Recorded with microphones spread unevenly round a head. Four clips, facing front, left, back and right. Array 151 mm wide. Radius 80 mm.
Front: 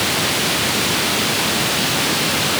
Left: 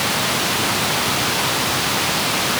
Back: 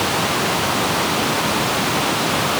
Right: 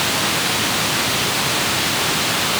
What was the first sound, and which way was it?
Only background noise.